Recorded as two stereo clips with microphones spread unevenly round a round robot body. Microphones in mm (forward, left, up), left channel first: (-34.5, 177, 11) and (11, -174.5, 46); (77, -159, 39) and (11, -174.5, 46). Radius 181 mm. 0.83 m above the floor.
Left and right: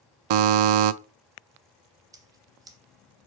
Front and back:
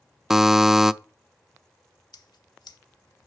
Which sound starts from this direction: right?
A buzzer, at 0.3 s.